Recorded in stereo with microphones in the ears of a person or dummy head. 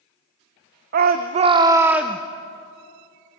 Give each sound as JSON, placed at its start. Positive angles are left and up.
{"t": 0.9, "sound": "a shout", "side_deg": -50, "distance_m": 0.7}